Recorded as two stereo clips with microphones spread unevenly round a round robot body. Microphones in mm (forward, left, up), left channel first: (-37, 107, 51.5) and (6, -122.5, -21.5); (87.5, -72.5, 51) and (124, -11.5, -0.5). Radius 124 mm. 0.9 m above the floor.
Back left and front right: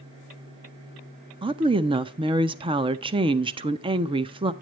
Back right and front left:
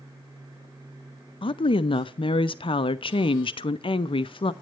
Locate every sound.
1.4 s a woman speaking: 95° right, 0.5 m